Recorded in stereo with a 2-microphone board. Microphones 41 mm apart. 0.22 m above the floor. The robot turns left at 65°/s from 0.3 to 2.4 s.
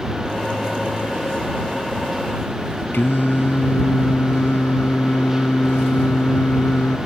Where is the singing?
60° left (ahead or behind).